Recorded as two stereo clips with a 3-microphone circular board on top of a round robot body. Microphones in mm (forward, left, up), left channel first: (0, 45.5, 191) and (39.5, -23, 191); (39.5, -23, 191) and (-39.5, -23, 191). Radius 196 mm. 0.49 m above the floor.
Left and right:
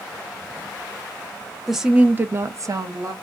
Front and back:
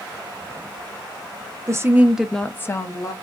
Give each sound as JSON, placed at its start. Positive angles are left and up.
{"t": 1.7, "sound": "a woman speaking", "azimuth_deg": -150, "distance_m": 0.9}